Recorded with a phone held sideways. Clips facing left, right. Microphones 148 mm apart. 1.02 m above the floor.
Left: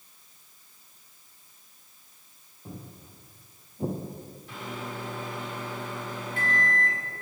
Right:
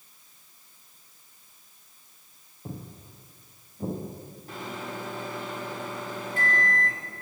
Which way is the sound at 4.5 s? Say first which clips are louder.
Right 1 dB; 40° right (ahead or behind).